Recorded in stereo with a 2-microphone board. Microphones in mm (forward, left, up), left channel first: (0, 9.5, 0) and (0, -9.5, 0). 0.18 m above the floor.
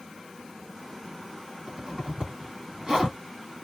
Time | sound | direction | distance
1.7 | a zipper | 40° right (ahead or behind) | 1.7 m